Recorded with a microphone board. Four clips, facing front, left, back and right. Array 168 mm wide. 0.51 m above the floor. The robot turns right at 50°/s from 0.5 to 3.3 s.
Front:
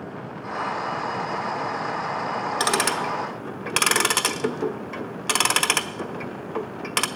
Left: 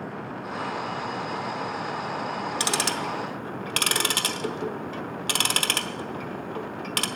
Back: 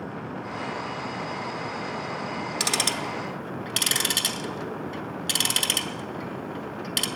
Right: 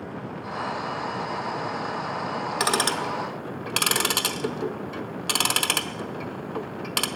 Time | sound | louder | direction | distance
2.6 | ticking | right 6 dB, front 7 dB | 50° right | 0.8 m